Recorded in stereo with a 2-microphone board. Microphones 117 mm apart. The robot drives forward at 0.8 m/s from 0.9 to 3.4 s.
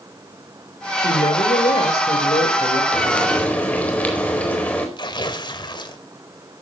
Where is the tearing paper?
40° left (ahead or behind), 2 m.